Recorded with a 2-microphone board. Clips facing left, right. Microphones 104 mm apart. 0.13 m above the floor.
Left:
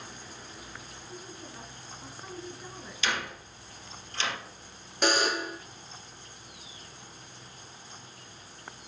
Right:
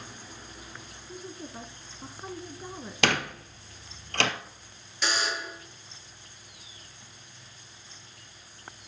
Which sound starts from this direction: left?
A buzzer, at 5.0 s.